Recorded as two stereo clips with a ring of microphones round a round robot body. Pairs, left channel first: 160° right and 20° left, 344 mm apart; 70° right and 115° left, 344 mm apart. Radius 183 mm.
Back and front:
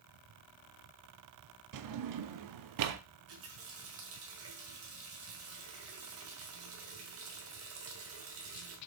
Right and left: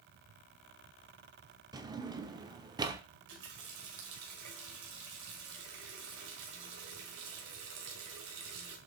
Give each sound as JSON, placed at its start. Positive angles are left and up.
{"t": 1.7, "sound": "a drawer", "azimuth_deg": 35, "distance_m": 0.6}
{"t": 3.1, "sound": "a running tap", "azimuth_deg": 75, "distance_m": 1.9}